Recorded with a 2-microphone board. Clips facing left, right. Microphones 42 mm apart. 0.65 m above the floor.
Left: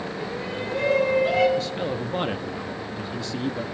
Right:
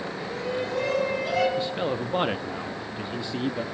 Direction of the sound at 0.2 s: 20° left (ahead or behind).